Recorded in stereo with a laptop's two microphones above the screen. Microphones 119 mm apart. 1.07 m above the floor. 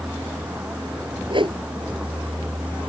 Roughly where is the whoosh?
Right.